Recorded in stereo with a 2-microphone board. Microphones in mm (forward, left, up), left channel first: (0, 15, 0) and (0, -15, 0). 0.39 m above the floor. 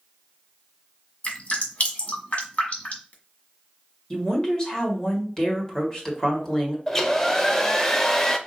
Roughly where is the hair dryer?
Centre.